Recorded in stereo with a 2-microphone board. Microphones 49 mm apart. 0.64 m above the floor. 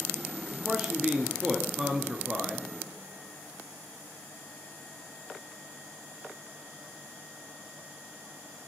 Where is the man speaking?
15° right (ahead or behind), 0.6 m.